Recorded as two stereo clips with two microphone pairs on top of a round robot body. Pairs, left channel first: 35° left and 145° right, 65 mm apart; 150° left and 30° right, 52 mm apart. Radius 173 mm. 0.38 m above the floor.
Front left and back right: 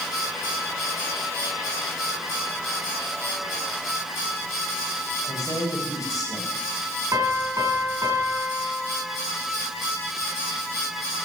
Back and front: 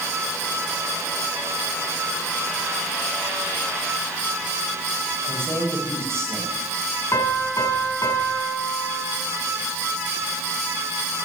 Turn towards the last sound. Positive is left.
turn(degrees=175)